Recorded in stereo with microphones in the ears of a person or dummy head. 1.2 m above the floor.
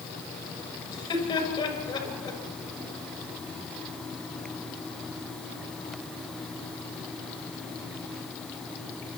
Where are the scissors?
I don't hear scissors.